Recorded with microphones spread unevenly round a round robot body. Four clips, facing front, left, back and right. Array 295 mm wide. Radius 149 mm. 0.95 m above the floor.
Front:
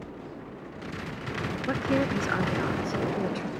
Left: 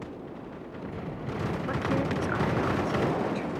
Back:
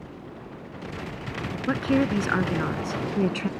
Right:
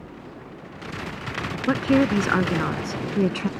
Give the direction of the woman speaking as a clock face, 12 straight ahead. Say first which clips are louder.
Right 11 dB, back 4 dB; 3 o'clock.